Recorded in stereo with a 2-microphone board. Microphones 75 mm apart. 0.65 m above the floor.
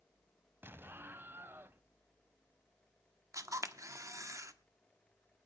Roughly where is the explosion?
Right.